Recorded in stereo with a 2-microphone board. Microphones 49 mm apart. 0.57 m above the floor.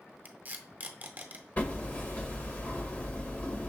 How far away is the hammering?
About 1.2 m.